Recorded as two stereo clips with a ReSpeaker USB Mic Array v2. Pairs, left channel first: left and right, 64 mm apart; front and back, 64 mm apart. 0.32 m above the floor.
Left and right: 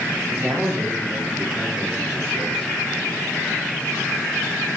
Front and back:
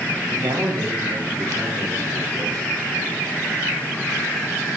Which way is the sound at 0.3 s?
165° right.